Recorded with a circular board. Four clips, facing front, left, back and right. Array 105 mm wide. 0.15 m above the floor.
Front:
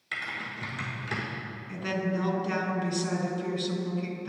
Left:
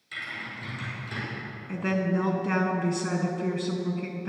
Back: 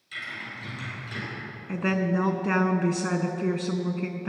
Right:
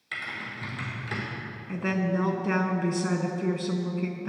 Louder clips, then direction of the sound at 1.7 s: Left 1 dB, back 5 dB; 175° right.